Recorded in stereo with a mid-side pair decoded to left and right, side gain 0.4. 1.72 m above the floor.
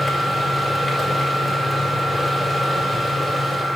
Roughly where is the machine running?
Ahead.